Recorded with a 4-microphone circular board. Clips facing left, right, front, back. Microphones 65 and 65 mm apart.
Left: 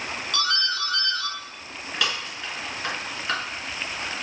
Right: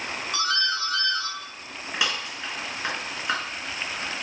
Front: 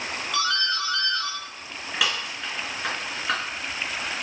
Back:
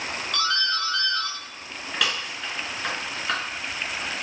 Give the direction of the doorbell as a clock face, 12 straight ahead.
2 o'clock.